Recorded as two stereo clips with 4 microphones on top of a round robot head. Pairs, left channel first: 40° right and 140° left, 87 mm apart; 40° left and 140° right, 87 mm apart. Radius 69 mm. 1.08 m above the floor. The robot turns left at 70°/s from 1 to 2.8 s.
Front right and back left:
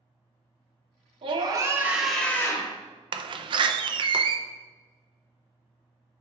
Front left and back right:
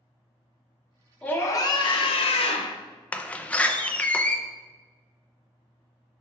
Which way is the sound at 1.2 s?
115° left.